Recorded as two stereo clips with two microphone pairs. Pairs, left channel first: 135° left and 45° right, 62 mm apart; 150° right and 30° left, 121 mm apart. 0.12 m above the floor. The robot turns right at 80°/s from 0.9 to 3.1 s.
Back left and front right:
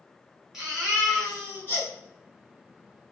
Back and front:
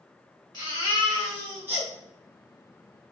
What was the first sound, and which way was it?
A baby crying, 30° left.